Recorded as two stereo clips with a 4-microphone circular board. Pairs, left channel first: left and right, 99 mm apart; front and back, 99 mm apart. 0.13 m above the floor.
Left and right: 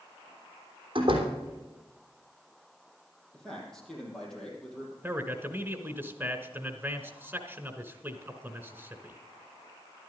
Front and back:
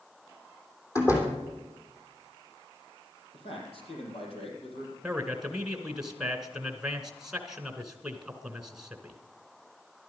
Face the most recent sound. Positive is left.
turn(degrees=-110)